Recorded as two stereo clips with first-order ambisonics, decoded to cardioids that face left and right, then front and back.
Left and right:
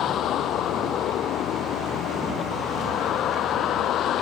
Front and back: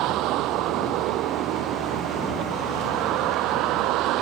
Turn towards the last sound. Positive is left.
turn(degrees=145)